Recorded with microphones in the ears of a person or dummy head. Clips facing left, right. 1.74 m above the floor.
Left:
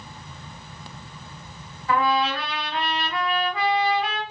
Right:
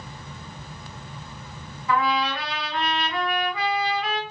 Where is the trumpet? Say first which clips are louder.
Left 2 dB; 30° left (ahead or behind), 1.5 m.